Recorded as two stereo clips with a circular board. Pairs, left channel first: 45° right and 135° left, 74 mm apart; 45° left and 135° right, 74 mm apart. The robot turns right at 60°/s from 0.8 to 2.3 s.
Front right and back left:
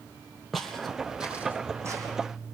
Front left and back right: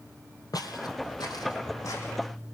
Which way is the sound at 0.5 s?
45° left.